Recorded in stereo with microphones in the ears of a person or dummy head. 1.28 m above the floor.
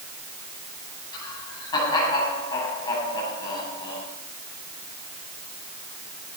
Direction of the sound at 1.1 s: 25° left (ahead or behind).